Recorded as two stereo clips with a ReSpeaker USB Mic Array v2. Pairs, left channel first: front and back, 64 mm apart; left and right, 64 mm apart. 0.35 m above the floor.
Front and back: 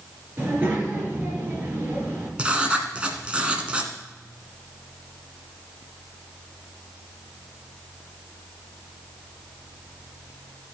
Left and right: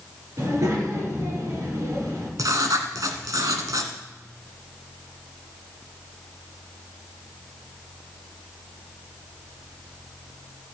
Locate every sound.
0.4 s a child speaking: 120° right, 4.5 m
2.4 s writing: 105° right, 1.2 m